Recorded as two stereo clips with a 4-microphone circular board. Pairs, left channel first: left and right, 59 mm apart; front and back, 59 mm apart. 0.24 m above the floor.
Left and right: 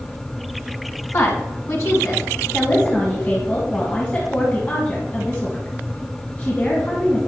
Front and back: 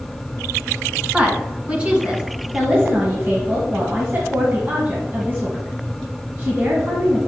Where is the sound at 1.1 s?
115° left, 2.5 m.